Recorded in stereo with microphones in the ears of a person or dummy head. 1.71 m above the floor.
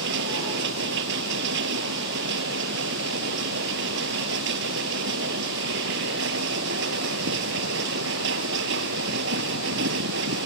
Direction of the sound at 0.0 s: 75° right (ahead or behind).